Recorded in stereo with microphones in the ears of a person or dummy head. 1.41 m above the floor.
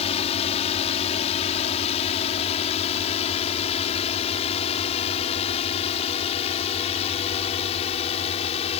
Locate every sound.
0.0 s a drone: 30° left (ahead or behind)